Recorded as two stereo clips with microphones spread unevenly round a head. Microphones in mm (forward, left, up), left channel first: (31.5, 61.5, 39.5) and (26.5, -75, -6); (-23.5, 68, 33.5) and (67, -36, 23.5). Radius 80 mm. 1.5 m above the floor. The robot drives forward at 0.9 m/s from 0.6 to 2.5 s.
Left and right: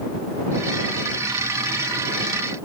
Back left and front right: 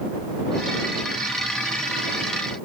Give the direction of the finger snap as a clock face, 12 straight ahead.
No finger snap in this recording.